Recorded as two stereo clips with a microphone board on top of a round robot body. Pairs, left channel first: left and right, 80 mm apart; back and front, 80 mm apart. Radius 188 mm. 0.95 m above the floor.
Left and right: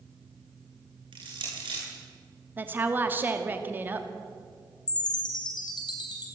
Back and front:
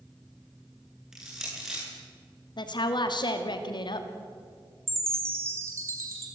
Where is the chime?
60° left, 4 m.